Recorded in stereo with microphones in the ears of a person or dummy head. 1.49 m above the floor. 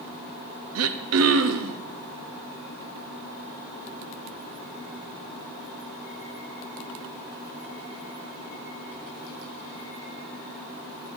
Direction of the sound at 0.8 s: 75° right (ahead or behind).